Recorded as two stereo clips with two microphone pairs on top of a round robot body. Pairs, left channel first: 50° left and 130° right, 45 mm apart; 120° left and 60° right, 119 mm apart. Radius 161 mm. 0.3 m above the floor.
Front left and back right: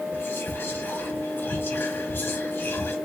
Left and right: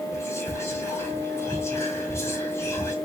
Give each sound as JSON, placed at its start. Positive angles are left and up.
{"t": 0.1, "sound": "whispering", "azimuth_deg": 55, "distance_m": 1.3}